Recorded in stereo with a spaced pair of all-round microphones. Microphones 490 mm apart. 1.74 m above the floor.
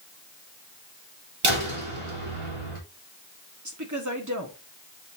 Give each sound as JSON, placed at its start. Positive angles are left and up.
{"t": 1.4, "sound": "a door slam", "side_deg": -70, "distance_m": 3.0}
{"t": 3.6, "sound": "a woman speaking", "side_deg": -35, "distance_m": 1.6}